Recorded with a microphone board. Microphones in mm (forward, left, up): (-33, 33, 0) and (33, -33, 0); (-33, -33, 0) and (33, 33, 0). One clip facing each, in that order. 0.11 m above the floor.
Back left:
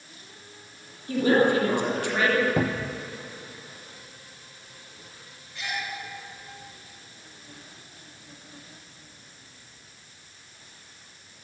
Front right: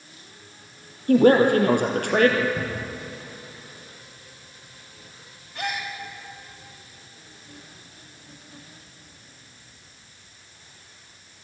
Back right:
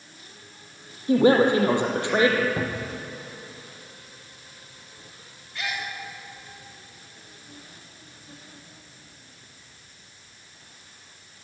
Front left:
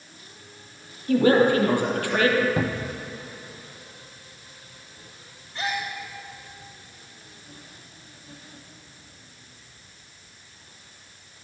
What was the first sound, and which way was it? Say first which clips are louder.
A woman speaking: front right 6 dB, even; 70° right.